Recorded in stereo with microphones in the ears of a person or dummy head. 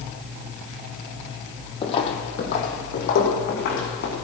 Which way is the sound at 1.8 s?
30° left (ahead or behind).